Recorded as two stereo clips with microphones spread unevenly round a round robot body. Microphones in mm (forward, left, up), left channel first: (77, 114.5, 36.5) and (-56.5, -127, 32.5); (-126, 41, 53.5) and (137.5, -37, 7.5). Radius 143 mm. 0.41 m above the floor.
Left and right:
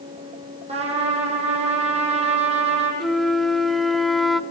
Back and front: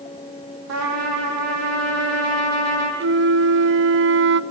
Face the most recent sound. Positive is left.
turn(degrees=-30)